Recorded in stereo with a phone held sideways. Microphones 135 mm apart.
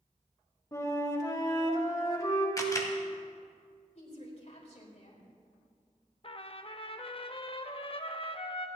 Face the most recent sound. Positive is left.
turn(degrees=40)  # may be behind; listen again after turning